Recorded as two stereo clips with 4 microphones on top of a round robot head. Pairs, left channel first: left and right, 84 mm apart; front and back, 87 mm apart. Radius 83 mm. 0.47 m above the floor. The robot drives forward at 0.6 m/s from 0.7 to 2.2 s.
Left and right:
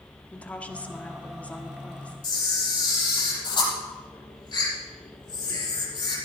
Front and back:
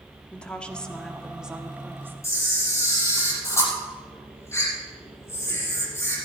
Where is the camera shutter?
55° left, 6.5 m.